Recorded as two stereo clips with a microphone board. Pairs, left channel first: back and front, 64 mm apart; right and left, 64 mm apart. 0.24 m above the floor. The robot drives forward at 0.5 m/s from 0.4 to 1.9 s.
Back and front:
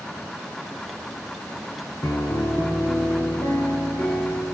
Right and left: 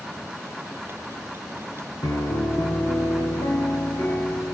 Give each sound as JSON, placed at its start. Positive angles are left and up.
{"t": 2.0, "sound": "a piano", "azimuth_deg": -125, "distance_m": 0.8}